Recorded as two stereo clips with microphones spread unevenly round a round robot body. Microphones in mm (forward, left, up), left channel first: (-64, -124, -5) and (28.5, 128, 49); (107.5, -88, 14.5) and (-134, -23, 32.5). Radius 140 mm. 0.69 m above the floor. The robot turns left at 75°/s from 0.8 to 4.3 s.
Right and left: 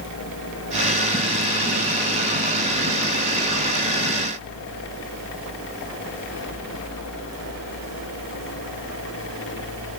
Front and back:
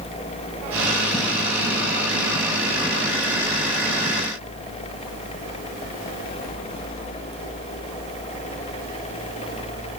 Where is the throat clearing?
No throat clearing in this recording.